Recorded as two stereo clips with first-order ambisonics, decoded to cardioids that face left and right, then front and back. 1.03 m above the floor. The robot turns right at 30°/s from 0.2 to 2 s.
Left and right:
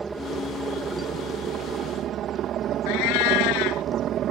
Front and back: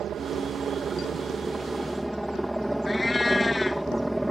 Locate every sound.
0.0 s a helicopter: 150° right; by 4.3 s 95° right
2.9 s a cat meowing: 80° left